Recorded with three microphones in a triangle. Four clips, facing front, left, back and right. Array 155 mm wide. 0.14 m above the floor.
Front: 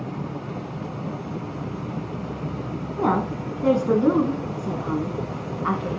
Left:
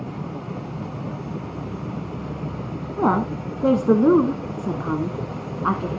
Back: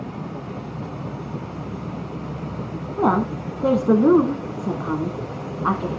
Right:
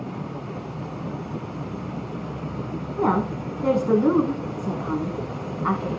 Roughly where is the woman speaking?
Behind left.